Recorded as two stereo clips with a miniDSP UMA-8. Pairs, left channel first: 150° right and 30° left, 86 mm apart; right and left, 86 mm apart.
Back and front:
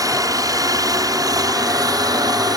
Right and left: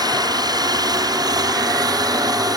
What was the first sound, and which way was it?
A helicopter, 70° left.